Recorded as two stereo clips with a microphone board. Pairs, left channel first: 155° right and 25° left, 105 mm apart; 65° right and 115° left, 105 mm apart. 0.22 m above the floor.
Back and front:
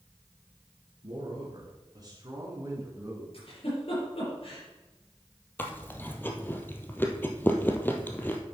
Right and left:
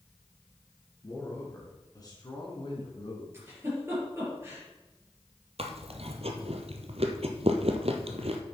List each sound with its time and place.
1.0 s a man speaking: 5° right, 3 m; by 3.2 s 45° right, 2.5 m
3.3 s a giggle: 175° left, 4.5 m
5.6 s chewing: 130° left, 1.0 m